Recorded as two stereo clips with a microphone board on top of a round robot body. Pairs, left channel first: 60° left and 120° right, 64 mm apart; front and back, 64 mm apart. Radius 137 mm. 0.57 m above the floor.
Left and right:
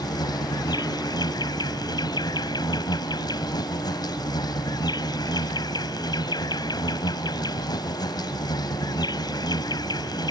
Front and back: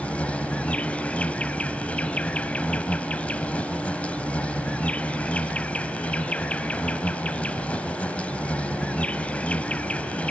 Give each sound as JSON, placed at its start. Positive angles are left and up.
{"t": 0.0, "sound": "an insect", "azimuth_deg": 70}